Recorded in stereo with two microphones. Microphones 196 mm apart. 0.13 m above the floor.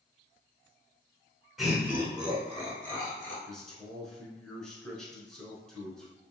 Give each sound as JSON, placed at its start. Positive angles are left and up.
{"t": 1.6, "sound": "laughter", "side_deg": 0, "distance_m": 1.3}
{"t": 3.5, "sound": "a man speaking", "side_deg": 5, "distance_m": 1.2}